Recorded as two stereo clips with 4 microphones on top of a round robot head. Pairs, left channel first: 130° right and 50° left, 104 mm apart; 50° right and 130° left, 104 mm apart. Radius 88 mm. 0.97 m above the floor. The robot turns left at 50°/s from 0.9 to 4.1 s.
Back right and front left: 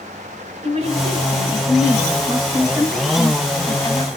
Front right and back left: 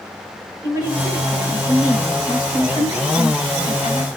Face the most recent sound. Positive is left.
turn(degrees=-95)